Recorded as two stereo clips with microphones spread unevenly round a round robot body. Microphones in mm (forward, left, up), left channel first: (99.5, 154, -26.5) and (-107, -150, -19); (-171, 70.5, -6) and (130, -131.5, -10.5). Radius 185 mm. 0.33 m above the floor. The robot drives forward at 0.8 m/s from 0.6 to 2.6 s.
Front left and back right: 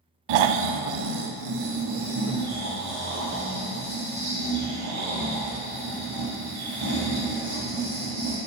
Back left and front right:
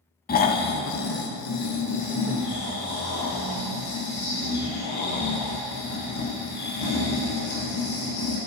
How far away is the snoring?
About 0.6 m.